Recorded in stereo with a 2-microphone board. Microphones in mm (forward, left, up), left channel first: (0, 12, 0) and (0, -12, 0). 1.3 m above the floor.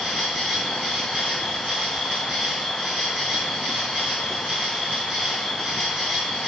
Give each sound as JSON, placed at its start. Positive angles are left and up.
{"t": 0.0, "sound": "an insect", "side_deg": -80, "distance_m": 4.0}